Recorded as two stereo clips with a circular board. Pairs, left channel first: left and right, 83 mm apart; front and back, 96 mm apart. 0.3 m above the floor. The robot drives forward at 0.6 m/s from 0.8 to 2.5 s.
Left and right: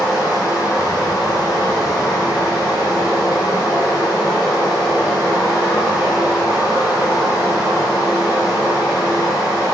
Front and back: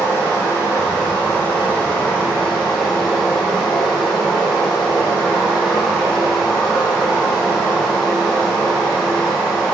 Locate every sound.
0.0 s running water: 60° left, 3 m; by 9.8 s 85° left, 2.5 m